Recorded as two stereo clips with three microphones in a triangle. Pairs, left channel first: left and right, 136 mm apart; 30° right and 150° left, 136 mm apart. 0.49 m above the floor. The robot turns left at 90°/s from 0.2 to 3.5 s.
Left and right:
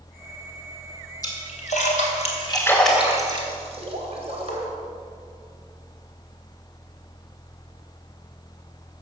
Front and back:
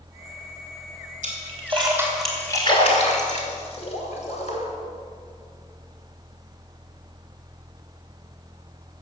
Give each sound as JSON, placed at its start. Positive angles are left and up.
{"t": 1.2, "sound": "a splash", "azimuth_deg": 150, "distance_m": 3.0}